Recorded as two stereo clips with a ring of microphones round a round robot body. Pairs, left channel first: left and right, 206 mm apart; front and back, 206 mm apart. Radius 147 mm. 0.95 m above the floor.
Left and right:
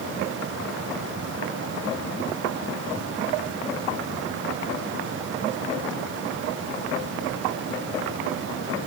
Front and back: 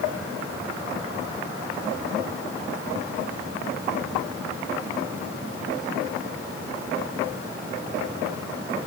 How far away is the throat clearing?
No throat clearing in this recording.